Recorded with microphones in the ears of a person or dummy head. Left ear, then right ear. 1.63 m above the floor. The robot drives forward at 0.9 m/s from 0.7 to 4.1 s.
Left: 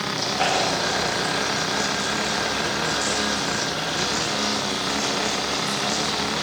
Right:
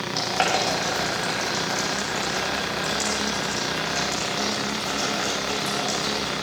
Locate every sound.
0.1 s boiling: 65° right (ahead or behind), 8.5 m; by 6.3 s 50° right (ahead or behind), 10 m